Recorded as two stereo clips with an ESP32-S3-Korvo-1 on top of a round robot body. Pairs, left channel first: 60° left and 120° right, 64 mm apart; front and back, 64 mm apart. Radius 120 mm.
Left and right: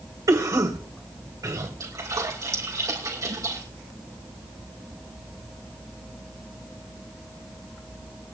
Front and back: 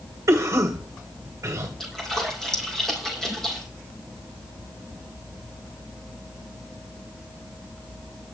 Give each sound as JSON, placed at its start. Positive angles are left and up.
{"t": 0.3, "sound": "a cough", "azimuth_deg": -140, "distance_m": 2.0}
{"t": 1.8, "sound": "a splash", "azimuth_deg": -85, "distance_m": 5.0}